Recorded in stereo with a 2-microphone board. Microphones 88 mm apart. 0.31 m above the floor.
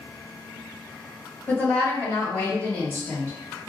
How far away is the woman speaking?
About 1.4 m.